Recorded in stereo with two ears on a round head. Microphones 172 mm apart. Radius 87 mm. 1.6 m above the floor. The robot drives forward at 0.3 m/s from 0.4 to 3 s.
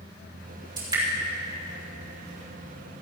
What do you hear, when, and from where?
0.8 s dripping: 25° right (ahead or behind), 4 m